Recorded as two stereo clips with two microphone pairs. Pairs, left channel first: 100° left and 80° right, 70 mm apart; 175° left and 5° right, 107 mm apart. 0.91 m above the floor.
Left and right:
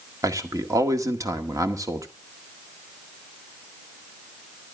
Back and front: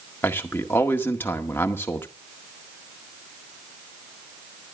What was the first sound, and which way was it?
A man speaking, 115° right.